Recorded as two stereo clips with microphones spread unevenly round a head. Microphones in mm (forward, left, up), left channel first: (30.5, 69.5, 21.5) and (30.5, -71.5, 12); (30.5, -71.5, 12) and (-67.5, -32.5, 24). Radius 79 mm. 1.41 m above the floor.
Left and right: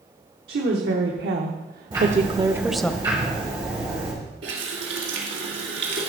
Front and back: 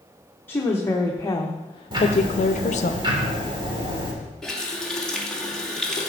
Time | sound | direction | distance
0.5 | a woman speaking | 95° right | 1.6 m
1.9 | ticking | 160° right | 3 m
4.4 | a running tap | 105° right | 2 m